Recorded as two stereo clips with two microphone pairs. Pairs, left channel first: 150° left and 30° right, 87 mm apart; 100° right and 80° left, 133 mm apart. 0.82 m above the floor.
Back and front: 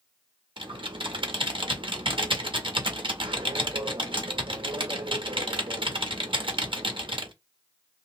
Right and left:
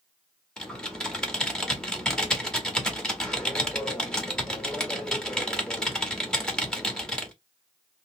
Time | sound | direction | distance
0.6 | typing on a keyboard | 15° right | 0.9 m